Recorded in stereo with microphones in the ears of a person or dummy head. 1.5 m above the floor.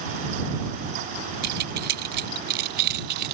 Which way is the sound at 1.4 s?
50° right (ahead or behind).